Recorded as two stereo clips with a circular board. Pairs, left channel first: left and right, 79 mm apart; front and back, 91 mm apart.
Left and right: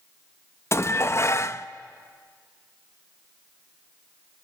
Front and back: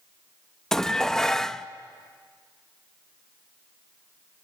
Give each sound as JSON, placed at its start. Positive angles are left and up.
{"t": 0.7, "sound": "dishes clattering", "azimuth_deg": 80, "distance_m": 0.6}